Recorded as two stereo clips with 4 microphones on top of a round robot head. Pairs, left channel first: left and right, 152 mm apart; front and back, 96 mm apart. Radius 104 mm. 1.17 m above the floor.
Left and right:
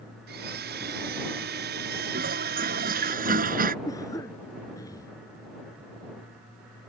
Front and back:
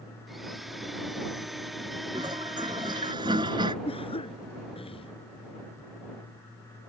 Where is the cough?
15° left.